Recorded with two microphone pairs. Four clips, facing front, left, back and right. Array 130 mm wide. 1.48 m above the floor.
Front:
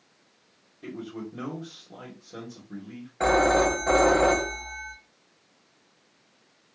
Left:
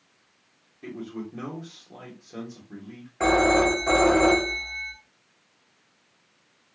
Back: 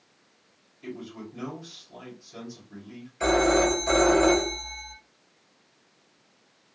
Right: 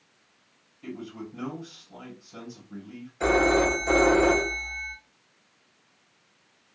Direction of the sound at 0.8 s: 40° left.